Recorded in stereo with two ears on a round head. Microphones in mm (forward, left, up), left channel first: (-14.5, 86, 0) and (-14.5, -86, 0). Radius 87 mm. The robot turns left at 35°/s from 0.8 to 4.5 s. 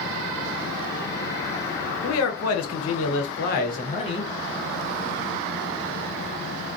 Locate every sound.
2.0 s a man speaking: 100° left, 0.6 m; by 4.3 s 20° left, 0.6 m